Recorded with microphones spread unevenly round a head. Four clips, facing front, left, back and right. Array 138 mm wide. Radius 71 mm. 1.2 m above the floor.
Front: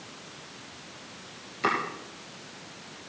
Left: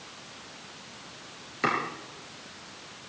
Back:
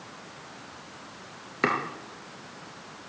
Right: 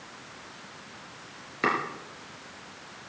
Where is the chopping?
165° right, 3.5 m.